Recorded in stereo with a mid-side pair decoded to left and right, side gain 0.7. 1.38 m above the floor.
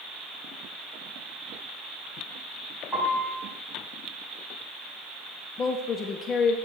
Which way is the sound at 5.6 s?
35° left.